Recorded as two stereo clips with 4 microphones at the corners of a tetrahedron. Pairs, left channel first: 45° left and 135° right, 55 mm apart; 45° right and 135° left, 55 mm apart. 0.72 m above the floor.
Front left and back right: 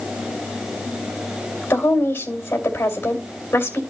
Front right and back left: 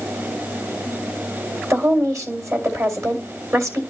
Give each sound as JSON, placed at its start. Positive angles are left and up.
{"t": 1.7, "sound": "a woman speaking", "azimuth_deg": 100, "distance_m": 2.5}